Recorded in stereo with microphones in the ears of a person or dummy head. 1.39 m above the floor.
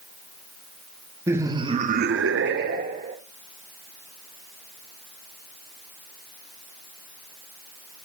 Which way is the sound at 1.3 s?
15° right (ahead or behind).